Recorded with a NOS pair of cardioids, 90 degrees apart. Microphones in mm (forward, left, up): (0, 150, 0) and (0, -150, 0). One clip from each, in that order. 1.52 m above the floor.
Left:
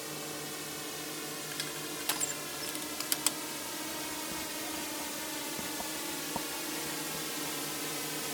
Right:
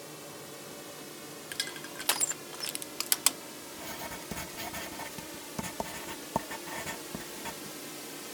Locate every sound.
0.0 s a drone: 50° left
1.5 s crushing: 20° right
3.7 s writing: 50° right